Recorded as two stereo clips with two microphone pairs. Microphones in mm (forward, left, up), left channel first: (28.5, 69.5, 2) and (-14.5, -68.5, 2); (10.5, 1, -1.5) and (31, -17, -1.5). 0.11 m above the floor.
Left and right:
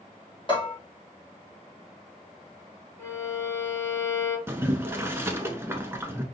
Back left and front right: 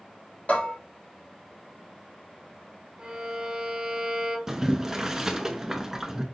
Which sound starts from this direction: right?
Boiling, at 4.5 s.